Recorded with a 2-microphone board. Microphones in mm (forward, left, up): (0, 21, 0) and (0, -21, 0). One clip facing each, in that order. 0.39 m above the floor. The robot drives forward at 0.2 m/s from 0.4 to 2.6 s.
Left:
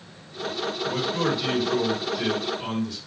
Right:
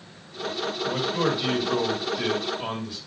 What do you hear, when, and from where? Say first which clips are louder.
0.8 s a man speaking: right 1 dB; 20° right (ahead or behind), 1.5 m